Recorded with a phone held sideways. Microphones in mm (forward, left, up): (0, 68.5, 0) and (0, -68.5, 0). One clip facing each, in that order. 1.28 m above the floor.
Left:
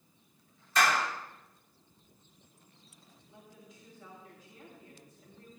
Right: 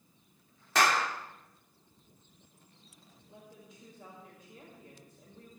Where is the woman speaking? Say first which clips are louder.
Right 2 dB; 60° right (ahead or behind), 5.5 m.